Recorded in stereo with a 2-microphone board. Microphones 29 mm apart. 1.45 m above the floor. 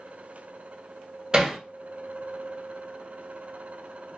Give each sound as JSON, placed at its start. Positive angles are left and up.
{"t": 1.3, "sound": "hammering", "side_deg": -25, "distance_m": 1.3}